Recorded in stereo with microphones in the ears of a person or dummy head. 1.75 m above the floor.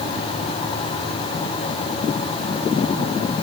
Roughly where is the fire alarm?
I don't hear a fire alarm.